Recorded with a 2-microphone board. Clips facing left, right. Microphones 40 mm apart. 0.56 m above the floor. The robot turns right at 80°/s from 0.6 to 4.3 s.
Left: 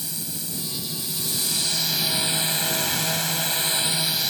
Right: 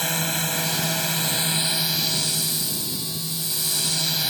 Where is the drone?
105° right; by 4.3 s 170° right.